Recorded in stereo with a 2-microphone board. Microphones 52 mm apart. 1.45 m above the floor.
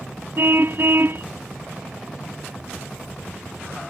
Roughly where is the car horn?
Right.